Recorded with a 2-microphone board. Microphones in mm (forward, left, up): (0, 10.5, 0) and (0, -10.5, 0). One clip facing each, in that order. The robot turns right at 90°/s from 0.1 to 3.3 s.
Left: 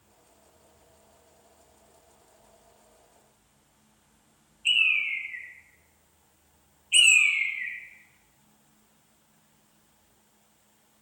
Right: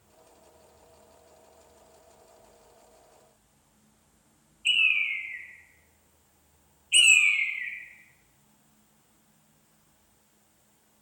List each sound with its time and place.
4.7 s a bird: centre (ahead or behind), 0.7 m